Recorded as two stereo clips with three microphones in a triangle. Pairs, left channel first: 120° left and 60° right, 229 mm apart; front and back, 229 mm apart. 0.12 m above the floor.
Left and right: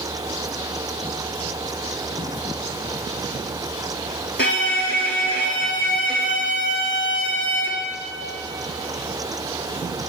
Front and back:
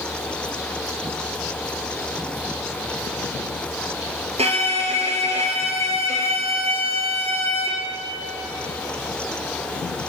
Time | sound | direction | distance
4.4 | a violin | 125° left | 0.7 m